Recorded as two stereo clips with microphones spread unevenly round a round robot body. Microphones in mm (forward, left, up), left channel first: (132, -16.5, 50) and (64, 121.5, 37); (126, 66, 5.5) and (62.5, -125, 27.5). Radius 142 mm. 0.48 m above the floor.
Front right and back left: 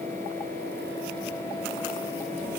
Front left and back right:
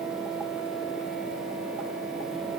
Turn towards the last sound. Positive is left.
No sound to turn to.